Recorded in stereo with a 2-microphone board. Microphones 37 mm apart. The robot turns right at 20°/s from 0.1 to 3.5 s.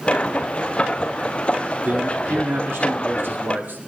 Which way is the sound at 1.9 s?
100° right.